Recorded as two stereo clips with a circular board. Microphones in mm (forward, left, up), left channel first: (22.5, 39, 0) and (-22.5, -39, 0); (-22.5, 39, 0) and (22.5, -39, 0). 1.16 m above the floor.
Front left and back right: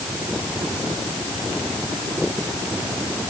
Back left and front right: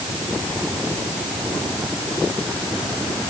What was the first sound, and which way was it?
Only background noise.